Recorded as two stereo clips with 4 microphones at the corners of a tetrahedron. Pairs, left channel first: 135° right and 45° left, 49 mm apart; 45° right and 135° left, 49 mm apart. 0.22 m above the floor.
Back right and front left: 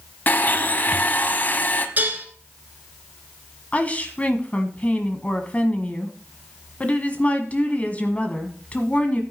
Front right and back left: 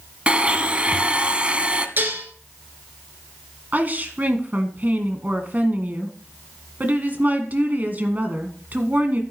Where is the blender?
170° right, 0.8 m.